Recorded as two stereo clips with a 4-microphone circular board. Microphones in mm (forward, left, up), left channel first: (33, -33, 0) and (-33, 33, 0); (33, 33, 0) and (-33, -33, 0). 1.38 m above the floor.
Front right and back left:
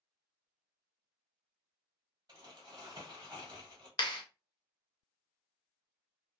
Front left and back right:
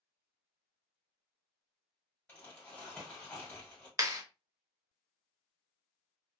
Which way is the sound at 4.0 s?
80° right.